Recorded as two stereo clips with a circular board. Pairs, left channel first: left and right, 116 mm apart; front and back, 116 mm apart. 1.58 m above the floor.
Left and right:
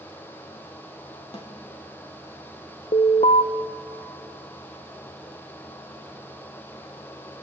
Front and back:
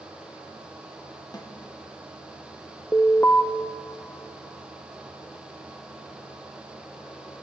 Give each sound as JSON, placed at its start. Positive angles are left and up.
{"t": 1.3, "sound": "a snare drum", "azimuth_deg": 55, "distance_m": 3.0}
{"t": 2.9, "sound": "an alarm", "azimuth_deg": 75, "distance_m": 1.0}